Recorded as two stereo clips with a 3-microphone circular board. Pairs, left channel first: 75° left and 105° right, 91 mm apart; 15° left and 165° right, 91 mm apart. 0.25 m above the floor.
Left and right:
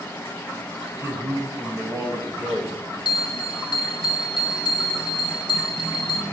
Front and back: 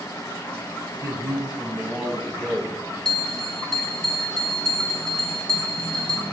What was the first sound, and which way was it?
A man speaking, 140° right.